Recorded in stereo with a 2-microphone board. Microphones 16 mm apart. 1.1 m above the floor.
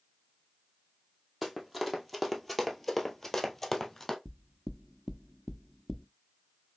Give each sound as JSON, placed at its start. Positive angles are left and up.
{"t": 1.4, "sound": "running footsteps", "side_deg": -5, "distance_m": 1.6}
{"t": 4.2, "sound": "knocking", "side_deg": -5, "distance_m": 0.6}